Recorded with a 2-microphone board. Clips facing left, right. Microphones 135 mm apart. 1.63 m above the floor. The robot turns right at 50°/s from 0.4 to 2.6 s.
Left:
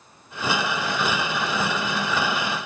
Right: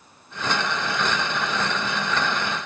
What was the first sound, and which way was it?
Only background noise.